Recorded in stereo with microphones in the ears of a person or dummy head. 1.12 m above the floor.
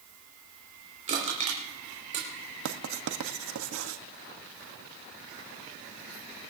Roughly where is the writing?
Right.